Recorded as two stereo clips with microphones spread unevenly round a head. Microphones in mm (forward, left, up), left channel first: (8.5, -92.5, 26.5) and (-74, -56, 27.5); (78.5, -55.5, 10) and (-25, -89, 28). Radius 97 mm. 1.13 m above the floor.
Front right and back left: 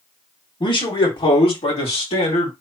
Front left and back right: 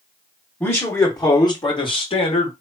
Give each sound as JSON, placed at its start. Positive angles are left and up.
{"t": 0.6, "sound": "a man speaking", "azimuth_deg": -45, "distance_m": 2.0}